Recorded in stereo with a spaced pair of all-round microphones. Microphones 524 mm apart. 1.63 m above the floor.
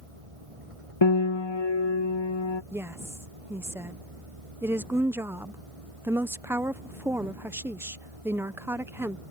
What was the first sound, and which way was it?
A vehicle, 80° right.